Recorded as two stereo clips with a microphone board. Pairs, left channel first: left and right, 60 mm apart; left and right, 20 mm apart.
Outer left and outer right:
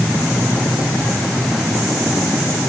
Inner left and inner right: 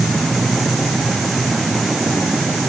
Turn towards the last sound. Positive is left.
No sound to turn to.